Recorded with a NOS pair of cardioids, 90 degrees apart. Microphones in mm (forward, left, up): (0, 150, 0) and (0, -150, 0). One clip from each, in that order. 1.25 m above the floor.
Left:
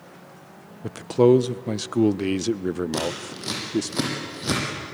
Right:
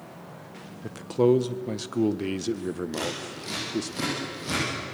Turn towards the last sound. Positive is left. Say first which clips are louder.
# left 3 dB
turn(degrees=60)